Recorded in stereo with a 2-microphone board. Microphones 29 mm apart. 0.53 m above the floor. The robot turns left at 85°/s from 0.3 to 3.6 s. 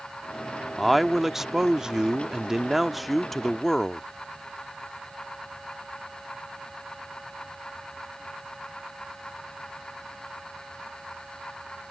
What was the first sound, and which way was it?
A man speaking, 5° left (ahead or behind).